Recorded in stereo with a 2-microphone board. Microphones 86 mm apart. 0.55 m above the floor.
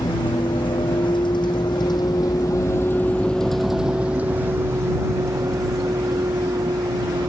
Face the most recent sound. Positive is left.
turn(degrees=-50)  # may be behind; listen again after turning